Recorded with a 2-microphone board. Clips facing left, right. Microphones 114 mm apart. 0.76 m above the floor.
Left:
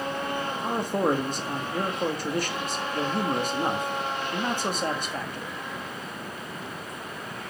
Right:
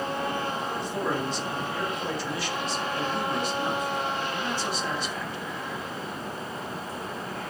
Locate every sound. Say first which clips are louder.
0.6 s a man speaking: left 4 dB; 50° left (ahead or behind), 1.6 m